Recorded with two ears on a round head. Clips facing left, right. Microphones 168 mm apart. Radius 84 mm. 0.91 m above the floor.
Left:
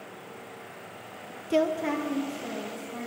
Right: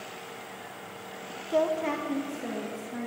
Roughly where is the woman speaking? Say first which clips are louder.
Left 1 dB; left.